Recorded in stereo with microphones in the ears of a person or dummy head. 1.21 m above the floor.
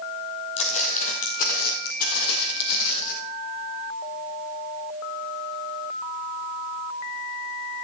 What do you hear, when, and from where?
0.6 s footsteps: 40° left (ahead or behind), 2.5 m; by 3.1 s 65° left (ahead or behind), 2.5 m